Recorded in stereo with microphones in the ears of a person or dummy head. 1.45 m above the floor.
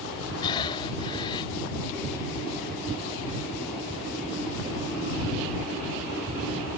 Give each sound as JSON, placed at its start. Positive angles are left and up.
{"t": 0.4, "sound": "breathing", "side_deg": 25}